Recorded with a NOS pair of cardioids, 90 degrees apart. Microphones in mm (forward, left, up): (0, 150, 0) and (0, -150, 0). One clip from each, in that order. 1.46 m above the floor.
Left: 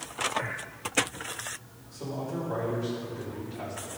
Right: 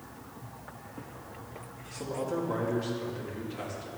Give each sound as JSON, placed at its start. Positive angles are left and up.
{"t": 1.9, "sound": "a man speaking", "azimuth_deg": -60, "distance_m": 3.5}